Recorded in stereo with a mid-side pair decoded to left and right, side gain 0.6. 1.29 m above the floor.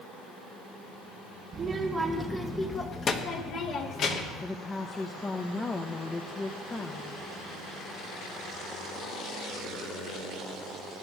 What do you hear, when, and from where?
1.5 s a child speaking: 35° right, 1.2 m; by 4.4 s 60° left, 2.5 m
4.4 s a woman speaking: 25° left, 1.1 m